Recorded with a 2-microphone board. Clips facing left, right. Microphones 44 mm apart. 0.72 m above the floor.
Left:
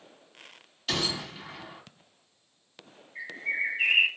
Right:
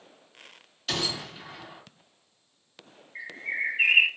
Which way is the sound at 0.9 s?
5° left (ahead or behind).